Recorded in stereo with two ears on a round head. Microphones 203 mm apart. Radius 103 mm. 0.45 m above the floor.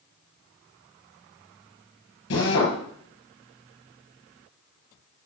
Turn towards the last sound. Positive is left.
turn(degrees=70)  # may be behind; listen again after turning